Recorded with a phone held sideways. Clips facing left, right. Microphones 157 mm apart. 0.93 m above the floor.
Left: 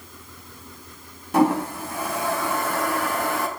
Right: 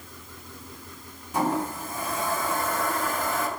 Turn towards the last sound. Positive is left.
turn(degrees=70)  # may be behind; listen again after turning